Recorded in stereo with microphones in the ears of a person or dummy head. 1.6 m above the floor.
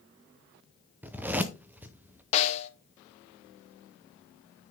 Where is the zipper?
5° right (ahead or behind), 0.7 m.